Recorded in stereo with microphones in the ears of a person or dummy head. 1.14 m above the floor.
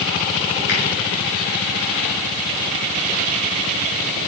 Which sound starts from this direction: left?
A finger snap, at 0.7 s.